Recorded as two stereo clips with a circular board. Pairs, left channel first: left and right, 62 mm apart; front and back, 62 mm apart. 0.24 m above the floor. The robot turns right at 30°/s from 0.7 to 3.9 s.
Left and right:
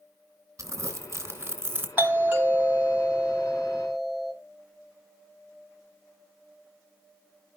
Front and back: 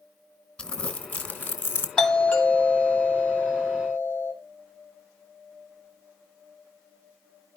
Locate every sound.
0.6 s crumpling: 75° right, 2.5 m; by 1.9 s 40° right, 2.5 m
2.0 s a doorbell: 65° right, 1.9 m; by 4.3 s 5° right, 1.9 m